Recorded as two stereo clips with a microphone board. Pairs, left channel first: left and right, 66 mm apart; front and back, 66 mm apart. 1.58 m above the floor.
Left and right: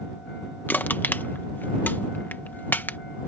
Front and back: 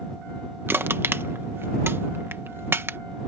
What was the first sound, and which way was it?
Crushing, 140° left.